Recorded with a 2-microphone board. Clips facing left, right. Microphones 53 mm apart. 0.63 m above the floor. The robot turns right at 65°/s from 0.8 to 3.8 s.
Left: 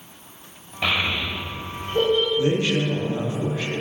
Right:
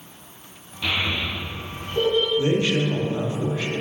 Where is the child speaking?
65° left (ahead or behind), 1.7 m; by 2.3 s 20° left (ahead or behind), 1.7 m.